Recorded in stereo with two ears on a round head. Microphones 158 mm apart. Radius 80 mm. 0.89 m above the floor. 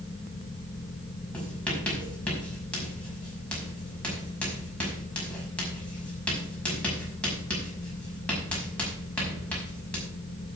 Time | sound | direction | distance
1.3 | writing | 10° left (ahead or behind) | 5.5 m